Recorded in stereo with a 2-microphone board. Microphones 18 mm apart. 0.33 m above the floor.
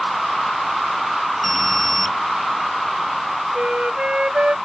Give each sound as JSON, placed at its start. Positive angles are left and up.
{"t": 1.4, "sound": "an alarm", "side_deg": 0}
{"t": 3.5, "sound": "a flute", "side_deg": -85}